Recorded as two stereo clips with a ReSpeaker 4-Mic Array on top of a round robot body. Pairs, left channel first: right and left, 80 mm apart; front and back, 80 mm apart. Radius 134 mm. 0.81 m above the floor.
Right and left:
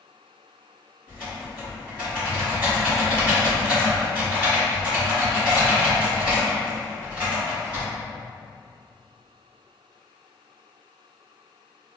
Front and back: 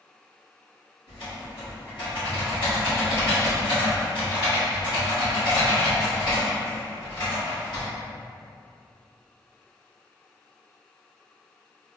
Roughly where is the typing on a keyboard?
Ahead.